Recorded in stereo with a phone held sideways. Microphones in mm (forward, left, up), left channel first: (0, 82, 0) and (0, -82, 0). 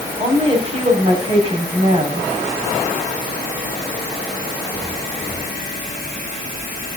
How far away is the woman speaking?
About 6.5 m.